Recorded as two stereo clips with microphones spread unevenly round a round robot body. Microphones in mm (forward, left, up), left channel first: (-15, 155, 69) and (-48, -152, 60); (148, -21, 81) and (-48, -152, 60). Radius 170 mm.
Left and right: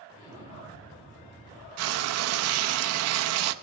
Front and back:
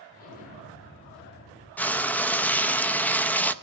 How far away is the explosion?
About 3 m.